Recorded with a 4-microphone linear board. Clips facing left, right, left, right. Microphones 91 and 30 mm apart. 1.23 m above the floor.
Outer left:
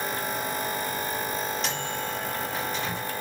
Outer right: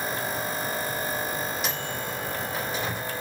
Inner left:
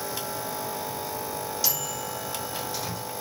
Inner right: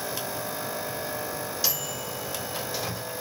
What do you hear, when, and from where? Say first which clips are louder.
1.6 s a microwave: outer left 1 dB, even; 5° right (ahead or behind), 5 m